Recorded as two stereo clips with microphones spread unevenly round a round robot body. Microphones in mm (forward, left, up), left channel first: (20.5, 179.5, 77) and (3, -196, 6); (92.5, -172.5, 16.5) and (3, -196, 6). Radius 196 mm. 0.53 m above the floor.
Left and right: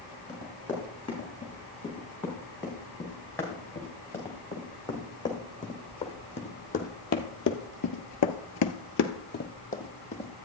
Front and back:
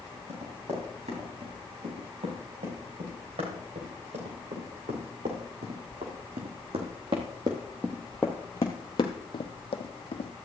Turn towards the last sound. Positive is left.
turn(degrees=15)